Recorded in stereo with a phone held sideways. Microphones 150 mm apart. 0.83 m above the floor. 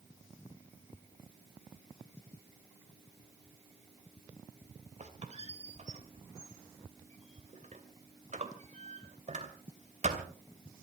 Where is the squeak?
50° right (ahead or behind), 2.5 m.